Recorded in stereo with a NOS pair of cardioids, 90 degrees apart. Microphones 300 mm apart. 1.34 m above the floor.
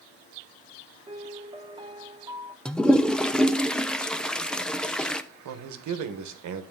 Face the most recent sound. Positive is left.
turn(degrees=-65)